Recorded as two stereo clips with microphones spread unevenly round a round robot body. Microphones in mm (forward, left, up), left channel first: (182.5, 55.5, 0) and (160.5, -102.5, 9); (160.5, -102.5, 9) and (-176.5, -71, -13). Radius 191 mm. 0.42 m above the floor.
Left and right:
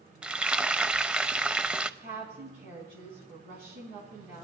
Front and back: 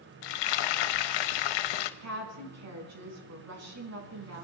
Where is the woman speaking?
145° right, 5 m.